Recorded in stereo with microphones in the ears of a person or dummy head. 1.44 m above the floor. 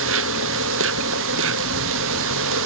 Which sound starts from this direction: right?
An insect, at 0.0 s.